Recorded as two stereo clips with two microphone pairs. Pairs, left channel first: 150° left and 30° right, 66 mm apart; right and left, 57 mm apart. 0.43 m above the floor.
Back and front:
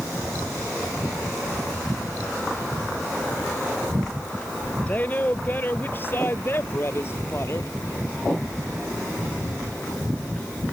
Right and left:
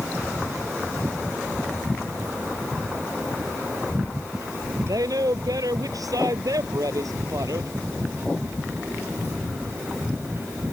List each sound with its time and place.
4.9 s a woman speaking: 90° left; by 7.7 s 105° left